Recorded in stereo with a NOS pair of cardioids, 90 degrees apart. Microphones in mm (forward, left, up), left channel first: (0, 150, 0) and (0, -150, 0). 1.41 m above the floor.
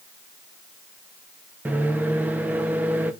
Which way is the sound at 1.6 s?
5° right.